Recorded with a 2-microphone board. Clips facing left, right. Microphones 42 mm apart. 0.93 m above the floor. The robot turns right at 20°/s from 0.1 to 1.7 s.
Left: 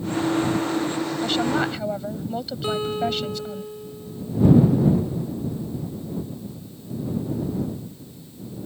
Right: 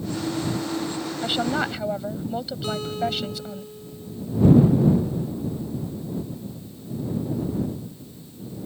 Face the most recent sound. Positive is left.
turn(degrees=25)  # may be behind; listen again after turning